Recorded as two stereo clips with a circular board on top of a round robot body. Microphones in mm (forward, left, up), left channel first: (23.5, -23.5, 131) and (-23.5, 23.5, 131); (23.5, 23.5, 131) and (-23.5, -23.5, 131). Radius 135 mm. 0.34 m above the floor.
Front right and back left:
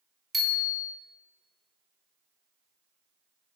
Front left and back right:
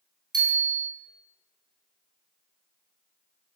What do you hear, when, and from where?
0.3 s a bicycle bell: 135° right, 3.5 m